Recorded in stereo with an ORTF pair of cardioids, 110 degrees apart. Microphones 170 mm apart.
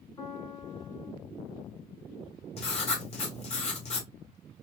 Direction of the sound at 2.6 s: 40° left.